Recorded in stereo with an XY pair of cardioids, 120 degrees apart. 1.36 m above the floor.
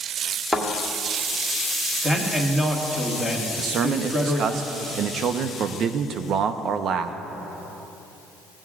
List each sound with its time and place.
0.5 s a thud: 10° right, 2 m
2.0 s a man speaking: 5° right, 1.7 m
3.6 s a man speaking: 55° right, 0.6 m